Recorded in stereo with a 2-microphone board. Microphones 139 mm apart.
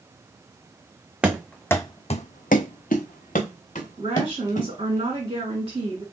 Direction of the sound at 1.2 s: 10° right (ahead or behind).